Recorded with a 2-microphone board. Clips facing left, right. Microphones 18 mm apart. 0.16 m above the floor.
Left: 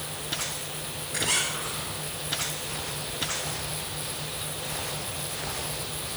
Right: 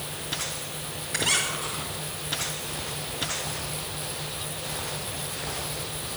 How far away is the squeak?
About 7.5 m.